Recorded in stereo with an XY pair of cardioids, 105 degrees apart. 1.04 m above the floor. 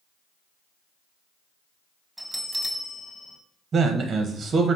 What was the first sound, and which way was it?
A bell, 10° right.